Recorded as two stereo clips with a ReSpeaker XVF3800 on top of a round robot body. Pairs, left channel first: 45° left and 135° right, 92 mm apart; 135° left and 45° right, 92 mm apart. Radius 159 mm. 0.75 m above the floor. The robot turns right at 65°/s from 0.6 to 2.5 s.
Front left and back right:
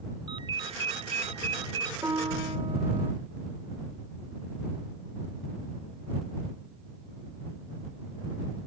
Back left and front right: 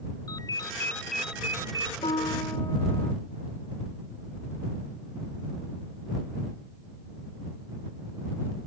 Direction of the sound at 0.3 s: 175° right.